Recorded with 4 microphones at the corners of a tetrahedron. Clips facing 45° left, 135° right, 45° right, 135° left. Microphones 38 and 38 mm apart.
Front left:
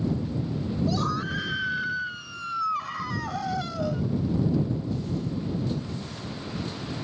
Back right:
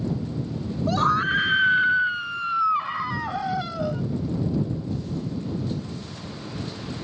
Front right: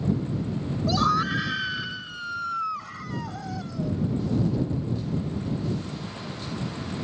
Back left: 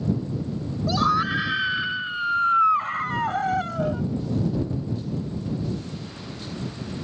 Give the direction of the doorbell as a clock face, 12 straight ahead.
I don't hear a doorbell.